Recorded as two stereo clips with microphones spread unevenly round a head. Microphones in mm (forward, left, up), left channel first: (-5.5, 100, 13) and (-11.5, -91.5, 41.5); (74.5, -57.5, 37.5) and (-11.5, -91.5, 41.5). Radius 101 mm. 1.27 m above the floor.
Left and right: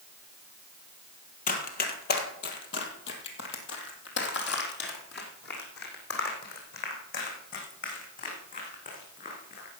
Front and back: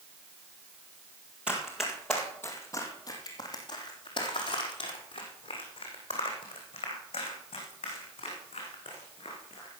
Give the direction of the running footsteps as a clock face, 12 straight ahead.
8 o'clock.